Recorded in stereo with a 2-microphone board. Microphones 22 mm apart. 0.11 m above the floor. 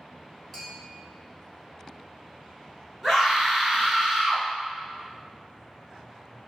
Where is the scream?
10° right (ahead or behind), 1.6 m.